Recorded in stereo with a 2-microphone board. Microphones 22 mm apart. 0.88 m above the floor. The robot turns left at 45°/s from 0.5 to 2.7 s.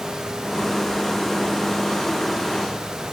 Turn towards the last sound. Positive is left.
No sound to turn to.